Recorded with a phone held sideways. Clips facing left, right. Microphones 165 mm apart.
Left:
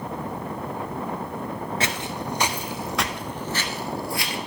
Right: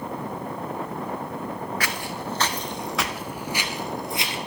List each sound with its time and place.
1.8 s footsteps: 25° left (ahead or behind), 0.9 m; by 4.4 s 25° right (ahead or behind), 1.2 m